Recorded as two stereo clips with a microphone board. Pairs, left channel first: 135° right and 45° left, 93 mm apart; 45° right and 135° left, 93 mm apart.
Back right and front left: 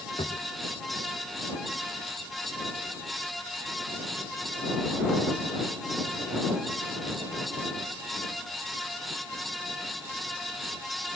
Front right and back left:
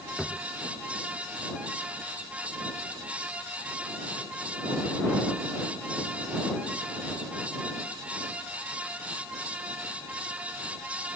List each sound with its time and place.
0.2 s a drawer: 135° right